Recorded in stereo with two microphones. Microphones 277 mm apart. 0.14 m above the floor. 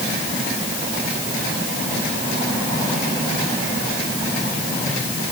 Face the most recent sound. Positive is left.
No sound to turn to.